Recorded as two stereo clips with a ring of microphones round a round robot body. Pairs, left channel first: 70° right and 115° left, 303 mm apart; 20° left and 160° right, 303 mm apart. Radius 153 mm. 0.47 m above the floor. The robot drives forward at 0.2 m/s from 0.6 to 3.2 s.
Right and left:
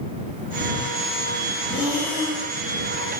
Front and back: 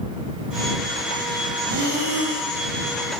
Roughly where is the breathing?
Behind.